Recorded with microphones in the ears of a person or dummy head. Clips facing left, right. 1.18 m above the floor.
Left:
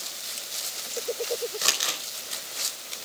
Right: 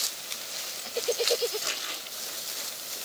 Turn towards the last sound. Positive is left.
turn(degrees=90)